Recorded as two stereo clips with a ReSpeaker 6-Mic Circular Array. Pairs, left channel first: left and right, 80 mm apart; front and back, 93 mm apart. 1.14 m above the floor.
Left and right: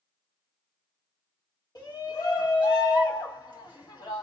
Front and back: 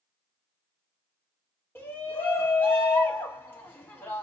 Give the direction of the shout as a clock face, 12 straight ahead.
10 o'clock.